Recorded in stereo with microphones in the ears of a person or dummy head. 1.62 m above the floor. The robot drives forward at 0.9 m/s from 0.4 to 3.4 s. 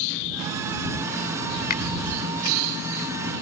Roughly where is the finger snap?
Left.